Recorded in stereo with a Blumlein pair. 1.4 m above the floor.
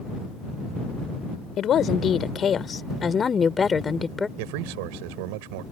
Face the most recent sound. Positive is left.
turn(degrees=-45)